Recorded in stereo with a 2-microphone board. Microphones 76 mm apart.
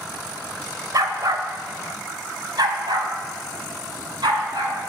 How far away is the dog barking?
About 1.5 m.